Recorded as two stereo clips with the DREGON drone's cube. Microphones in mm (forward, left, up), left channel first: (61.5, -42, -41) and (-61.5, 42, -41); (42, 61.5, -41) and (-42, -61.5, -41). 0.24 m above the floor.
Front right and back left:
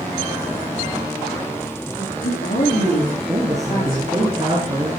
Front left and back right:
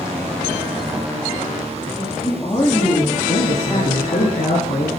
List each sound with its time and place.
2.0 s a woman speaking: 10° right, 9 m; by 4.3 s straight ahead, 9.5 m
3.3 s a man speaking: 80° left, 3 m